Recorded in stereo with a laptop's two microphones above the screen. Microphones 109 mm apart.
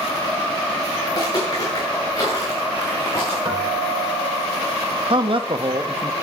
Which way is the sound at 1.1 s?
35° left (ahead or behind).